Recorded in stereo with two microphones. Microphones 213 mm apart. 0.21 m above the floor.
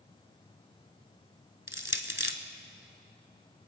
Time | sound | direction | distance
1.7 | crushing | 65° left (ahead or behind) | 0.9 m